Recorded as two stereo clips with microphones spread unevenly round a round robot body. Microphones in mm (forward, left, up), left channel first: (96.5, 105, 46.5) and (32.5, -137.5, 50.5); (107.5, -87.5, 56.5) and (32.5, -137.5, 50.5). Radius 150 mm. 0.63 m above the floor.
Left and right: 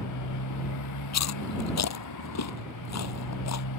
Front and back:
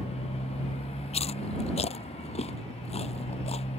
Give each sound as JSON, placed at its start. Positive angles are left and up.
{"t": 0.0, "sound": "a motorcycle", "azimuth_deg": 70}
{"t": 1.1, "sound": "chewing", "azimuth_deg": 55}